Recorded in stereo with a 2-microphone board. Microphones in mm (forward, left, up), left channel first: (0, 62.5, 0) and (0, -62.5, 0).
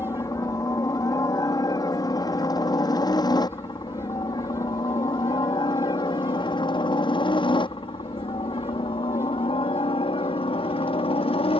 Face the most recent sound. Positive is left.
turn(degrees=50)  # may be behind; listen again after turning